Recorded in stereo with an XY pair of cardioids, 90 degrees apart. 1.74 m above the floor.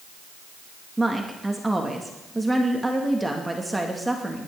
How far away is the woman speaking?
About 2 m.